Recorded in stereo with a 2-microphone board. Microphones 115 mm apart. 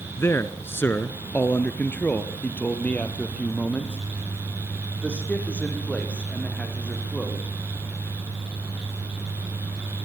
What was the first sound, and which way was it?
A man speaking, 20° left (ahead or behind).